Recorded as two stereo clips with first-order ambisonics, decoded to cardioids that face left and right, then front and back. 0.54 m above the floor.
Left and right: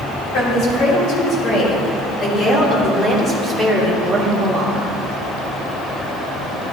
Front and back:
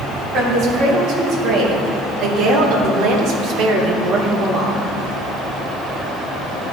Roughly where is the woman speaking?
Behind left.